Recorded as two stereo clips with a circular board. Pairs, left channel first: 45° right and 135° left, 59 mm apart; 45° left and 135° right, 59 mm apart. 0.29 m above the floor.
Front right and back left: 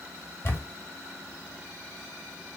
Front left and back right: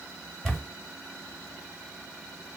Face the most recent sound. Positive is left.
turn(degrees=-40)